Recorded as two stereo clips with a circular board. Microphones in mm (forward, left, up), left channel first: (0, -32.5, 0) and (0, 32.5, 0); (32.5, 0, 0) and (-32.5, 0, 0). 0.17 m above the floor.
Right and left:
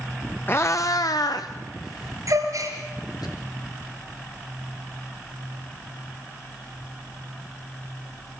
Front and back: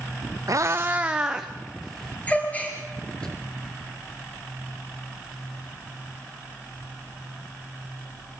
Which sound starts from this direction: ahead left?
A gasp, at 2.3 s.